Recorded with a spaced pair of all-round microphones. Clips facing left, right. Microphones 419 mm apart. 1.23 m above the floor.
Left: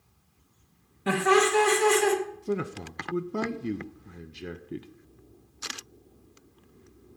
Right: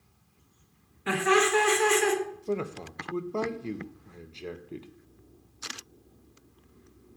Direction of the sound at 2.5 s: 30° left (ahead or behind).